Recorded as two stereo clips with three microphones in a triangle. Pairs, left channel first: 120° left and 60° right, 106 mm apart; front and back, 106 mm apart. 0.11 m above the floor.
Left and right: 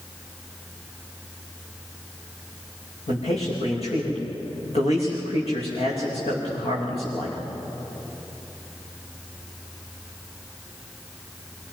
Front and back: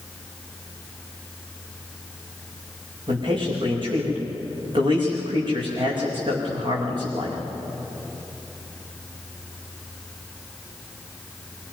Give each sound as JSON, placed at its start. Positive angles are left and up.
{"t": 3.1, "sound": "a man speaking", "azimuth_deg": 140, "distance_m": 8.5}